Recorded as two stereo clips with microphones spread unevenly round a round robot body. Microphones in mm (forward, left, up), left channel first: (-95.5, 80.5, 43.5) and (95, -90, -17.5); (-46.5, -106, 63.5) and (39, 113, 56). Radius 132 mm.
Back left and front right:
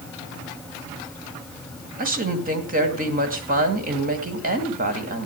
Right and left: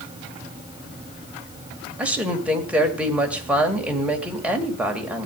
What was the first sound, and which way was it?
A woman speaking, 15° right.